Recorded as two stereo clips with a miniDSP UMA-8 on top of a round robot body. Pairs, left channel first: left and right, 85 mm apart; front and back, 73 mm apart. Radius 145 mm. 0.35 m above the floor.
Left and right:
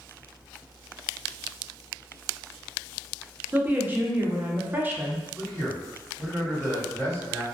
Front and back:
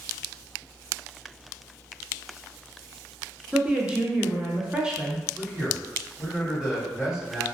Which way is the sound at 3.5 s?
120° right.